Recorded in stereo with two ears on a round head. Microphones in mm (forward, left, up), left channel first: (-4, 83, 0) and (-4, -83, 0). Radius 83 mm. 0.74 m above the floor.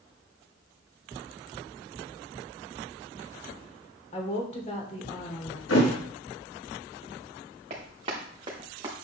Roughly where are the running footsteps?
Right.